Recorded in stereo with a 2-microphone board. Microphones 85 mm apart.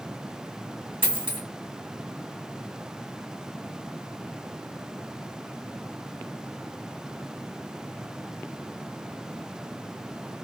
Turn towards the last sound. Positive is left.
turn(degrees=-80)